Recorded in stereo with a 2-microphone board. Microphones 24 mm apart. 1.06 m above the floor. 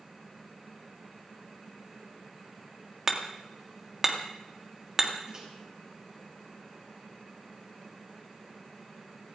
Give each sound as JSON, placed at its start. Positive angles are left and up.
{"t": 3.1, "sound": "hammering", "side_deg": -15, "distance_m": 1.9}
{"t": 5.3, "sound": "a microwave", "side_deg": -30, "distance_m": 5.0}